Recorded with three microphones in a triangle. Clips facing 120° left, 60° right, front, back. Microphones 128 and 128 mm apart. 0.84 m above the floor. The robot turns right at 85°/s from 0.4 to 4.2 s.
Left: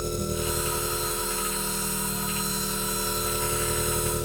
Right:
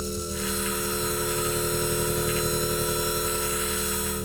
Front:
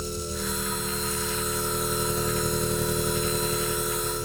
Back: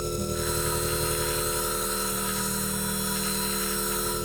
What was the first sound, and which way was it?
An engine running, 150° left.